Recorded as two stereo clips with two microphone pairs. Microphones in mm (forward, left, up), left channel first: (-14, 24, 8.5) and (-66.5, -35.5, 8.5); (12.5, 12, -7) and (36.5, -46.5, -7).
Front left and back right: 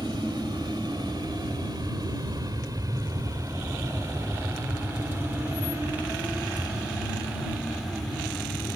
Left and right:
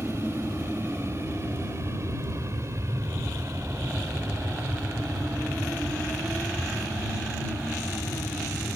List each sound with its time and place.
0.0 s an aircraft: 115° right; by 8.8 s 35° right